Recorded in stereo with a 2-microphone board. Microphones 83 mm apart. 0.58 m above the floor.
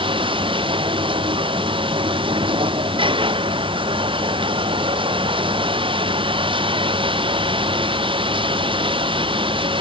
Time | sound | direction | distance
0.0 | running water | 90° right | ?